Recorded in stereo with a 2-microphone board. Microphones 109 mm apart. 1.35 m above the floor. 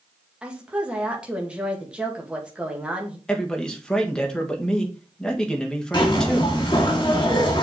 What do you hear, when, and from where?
0.4 s a woman speaking: 10° right (ahead or behind), 2.0 m
3.3 s a man speaking: 10° left (ahead or behind), 1.7 m
5.9 s a zipper: 45° left (ahead or behind), 2 m